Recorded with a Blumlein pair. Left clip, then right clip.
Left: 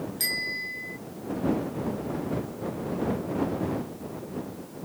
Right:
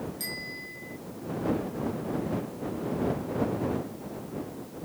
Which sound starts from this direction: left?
A bicycle bell, at 0.2 s.